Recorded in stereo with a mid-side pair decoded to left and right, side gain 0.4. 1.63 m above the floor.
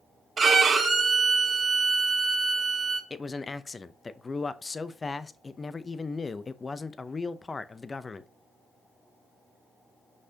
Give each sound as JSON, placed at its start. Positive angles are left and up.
{"t": 0.4, "sound": "a violin", "azimuth_deg": -45, "distance_m": 1.8}
{"t": 3.1, "sound": "a man speaking", "azimuth_deg": 30, "distance_m": 0.7}